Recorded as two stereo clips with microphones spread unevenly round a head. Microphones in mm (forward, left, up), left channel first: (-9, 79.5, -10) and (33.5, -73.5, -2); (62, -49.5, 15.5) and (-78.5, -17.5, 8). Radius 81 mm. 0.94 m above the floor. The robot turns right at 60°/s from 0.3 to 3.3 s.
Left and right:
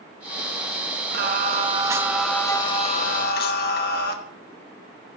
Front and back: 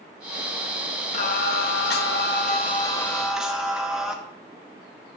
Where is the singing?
50° right, 1.0 m; by 4.1 s 80° left, 1.0 m.